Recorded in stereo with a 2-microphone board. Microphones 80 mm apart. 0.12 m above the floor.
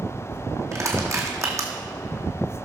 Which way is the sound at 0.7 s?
40° right (ahead or behind).